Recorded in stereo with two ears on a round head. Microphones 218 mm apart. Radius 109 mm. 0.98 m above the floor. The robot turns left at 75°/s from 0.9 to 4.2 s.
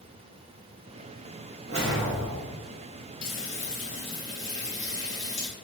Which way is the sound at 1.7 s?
145° right.